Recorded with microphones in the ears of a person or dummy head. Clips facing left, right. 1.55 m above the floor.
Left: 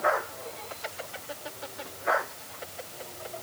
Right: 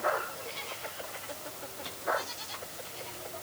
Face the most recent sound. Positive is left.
No sound to turn to.